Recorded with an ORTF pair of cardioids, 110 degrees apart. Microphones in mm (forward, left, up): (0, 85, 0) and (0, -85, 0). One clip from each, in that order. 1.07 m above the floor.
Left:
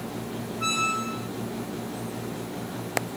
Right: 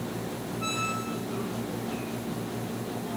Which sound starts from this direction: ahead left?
A squeak, at 0.6 s.